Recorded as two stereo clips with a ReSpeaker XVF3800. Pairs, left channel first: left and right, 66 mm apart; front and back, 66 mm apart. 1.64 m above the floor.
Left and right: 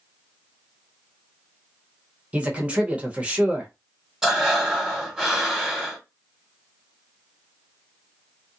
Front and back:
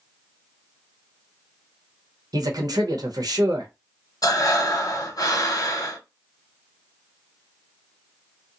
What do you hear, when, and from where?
2.3 s a man speaking: 160° right, 0.9 m
4.2 s breathing: 5° right, 1.0 m